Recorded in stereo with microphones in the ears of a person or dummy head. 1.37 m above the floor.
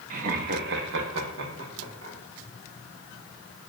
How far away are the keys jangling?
No keys jangling in this recording.